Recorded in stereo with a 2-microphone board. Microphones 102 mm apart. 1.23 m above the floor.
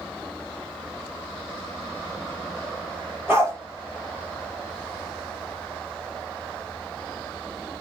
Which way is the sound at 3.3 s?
25° right (ahead or behind).